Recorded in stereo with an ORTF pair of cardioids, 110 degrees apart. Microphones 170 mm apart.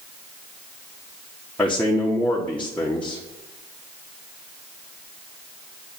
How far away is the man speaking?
About 1.3 m.